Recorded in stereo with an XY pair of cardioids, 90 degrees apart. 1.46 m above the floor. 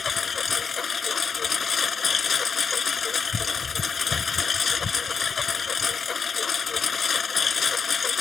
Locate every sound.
0.0 s a lawn mower: 40° left